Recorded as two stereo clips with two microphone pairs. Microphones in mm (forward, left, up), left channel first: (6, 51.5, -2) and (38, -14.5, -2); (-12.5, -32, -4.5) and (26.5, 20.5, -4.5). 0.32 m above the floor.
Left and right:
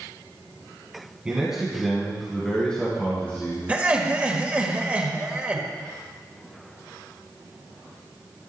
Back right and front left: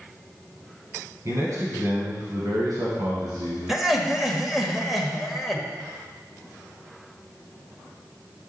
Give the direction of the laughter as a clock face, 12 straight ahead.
1 o'clock.